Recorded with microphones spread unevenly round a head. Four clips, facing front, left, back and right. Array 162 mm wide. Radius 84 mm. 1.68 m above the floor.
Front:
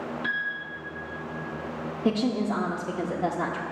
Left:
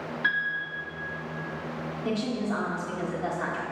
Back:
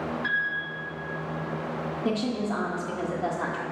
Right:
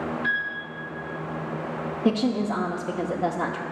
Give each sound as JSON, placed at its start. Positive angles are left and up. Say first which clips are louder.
{"t": 0.2, "sound": "a piano", "louder": "right 1 dB, even", "azimuth_deg": 75, "distance_m": 2.5}
{"t": 2.0, "sound": "a woman speaking", "louder": "right 6 dB, front 4 dB", "azimuth_deg": -70, "distance_m": 0.5}